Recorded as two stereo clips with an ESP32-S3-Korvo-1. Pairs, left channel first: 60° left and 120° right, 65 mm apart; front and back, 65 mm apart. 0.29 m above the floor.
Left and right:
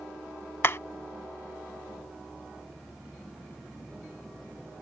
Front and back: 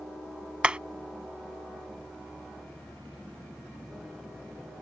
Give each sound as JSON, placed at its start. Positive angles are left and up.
{"t": 0.6, "sound": "hammering", "azimuth_deg": 110}